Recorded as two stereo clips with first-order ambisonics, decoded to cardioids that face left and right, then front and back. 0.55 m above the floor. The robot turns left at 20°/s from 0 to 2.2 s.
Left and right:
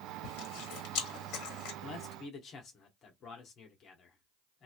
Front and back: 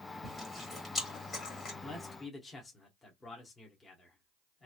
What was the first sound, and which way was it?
Chewing, 85° left.